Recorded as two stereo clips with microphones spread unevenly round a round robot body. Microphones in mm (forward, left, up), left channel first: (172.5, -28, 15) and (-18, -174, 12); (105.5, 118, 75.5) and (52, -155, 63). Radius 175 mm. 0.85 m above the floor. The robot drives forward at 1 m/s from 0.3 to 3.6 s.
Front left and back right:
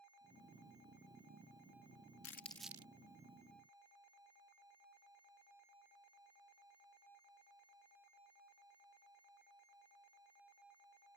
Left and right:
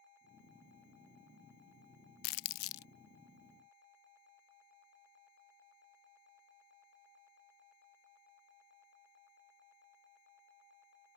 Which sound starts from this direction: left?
Crumpling, at 2.2 s.